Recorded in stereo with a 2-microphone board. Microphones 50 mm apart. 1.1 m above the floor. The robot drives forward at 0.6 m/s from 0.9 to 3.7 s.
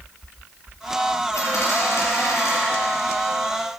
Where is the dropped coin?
75° left (ahead or behind), 4.5 m; by 2.6 s 70° left (ahead or behind), 5 m.